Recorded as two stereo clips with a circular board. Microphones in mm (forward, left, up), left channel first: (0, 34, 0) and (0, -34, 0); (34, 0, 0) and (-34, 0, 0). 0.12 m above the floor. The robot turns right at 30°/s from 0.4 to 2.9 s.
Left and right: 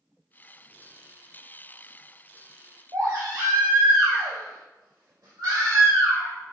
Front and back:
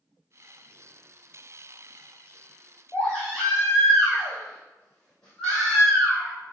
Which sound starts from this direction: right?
A baby crying, at 2.9 s.